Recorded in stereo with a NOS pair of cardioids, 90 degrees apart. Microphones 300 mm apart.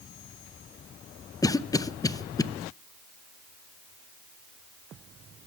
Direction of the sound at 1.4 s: 10° left.